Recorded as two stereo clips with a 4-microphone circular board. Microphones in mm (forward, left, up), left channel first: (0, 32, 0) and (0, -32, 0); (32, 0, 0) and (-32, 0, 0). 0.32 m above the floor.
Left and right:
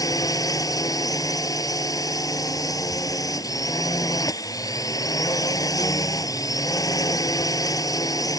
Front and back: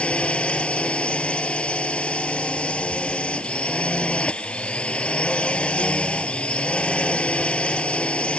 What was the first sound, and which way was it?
A drone, 70° left.